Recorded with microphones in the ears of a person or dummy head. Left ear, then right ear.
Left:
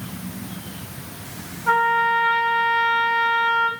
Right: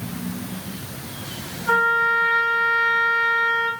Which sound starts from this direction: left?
A trumpet, at 1.7 s.